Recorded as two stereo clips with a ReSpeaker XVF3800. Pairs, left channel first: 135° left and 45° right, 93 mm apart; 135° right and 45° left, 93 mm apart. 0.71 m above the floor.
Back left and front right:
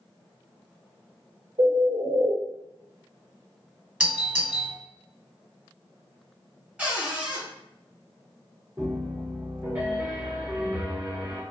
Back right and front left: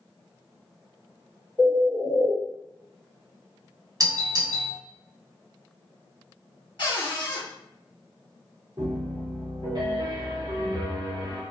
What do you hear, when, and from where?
1.6 s a bird: 40° right, 1.9 m
4.0 s a doorbell: 20° left, 1.6 m
6.8 s a cupboard door: 115° right, 1.8 m
8.8 s a piano: 15° left, 1.9 m